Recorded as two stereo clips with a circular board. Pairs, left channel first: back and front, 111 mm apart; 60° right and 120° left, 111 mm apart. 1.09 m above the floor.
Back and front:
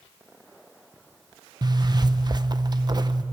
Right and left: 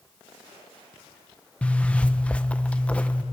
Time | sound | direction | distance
1.6 | a zipper | 15° left | 0.7 m